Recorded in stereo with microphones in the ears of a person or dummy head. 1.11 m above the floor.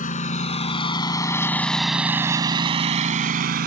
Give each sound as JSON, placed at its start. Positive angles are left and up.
{"t": 0.0, "sound": "a lawn mower", "side_deg": 40}